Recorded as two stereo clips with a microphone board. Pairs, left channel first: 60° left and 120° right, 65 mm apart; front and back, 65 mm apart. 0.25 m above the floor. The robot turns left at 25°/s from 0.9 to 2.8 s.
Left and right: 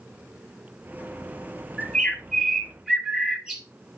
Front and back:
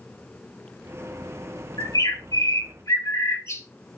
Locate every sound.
1.8 s a bird: 20° right, 2.5 m; by 3.6 s 45° right, 2.5 m